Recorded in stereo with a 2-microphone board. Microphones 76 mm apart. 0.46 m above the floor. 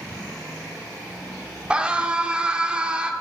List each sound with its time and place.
1.7 s a scream: 15° right (ahead or behind), 0.9 m